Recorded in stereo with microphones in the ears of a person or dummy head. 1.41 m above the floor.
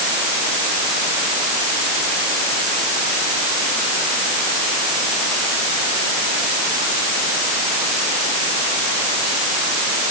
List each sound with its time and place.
Only background noise.